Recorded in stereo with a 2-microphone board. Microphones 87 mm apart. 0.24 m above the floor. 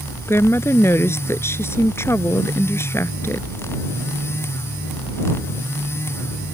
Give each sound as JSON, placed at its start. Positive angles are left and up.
{"t": 0.3, "sound": "a woman speaking", "side_deg": 30}